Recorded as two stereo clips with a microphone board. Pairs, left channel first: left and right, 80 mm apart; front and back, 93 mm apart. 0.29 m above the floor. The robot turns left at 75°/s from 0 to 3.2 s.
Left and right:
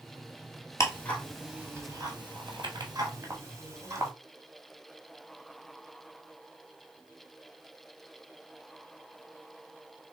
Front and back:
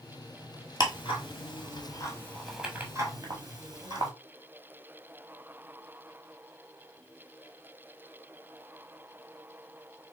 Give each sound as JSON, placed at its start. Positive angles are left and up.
{"t": 0.8, "sound": "ticking", "azimuth_deg": 40, "distance_m": 1.3}